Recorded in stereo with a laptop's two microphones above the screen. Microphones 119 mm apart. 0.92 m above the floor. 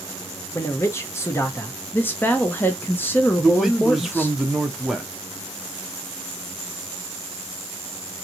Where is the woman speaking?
15° left (ahead or behind), 0.6 m.